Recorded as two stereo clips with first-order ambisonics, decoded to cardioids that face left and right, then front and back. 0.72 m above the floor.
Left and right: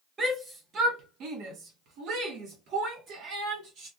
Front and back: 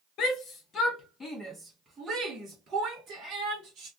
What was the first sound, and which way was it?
A shout, 20° right.